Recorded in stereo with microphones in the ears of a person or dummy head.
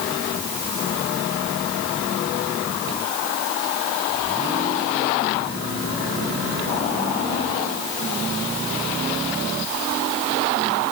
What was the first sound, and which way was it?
Only background noise.